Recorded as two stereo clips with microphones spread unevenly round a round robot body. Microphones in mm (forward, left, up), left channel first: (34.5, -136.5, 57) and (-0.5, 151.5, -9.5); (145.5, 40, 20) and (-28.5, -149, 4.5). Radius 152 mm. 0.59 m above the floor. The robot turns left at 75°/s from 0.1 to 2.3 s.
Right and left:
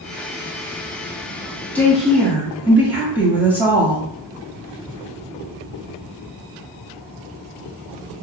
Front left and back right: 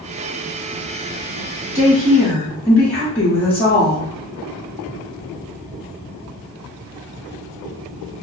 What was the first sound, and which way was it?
A woman speaking, 170° left.